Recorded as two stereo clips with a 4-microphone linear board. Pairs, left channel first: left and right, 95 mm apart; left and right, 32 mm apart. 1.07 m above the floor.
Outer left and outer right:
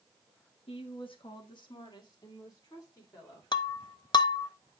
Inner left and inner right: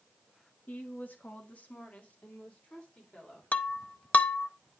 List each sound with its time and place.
0.7 s a woman speaking: 75° left (ahead or behind), 1.0 m; by 3.4 s 35° left (ahead or behind), 4 m
3.5 s breaking glass: 50° left (ahead or behind), 0.6 m